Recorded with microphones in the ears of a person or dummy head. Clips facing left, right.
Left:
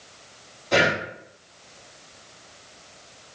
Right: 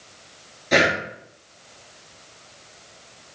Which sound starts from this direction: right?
Breathing, at 0.7 s.